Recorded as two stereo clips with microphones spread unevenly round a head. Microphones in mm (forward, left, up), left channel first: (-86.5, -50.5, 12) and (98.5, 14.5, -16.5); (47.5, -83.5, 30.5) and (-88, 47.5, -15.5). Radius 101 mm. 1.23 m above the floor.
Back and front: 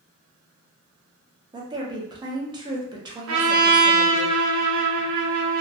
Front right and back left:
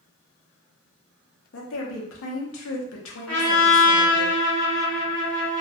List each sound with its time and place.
1.5 s a woman speaking: 50° right, 0.6 m
3.3 s a trumpet: 40° left, 0.6 m